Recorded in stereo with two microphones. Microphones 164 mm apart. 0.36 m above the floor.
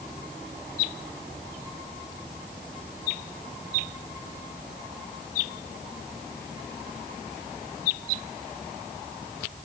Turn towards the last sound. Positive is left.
No sound to turn to.